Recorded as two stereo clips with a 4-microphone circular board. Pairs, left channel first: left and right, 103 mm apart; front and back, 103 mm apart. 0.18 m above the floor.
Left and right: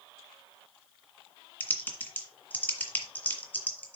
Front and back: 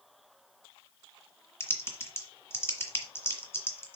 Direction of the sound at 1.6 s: 35° left.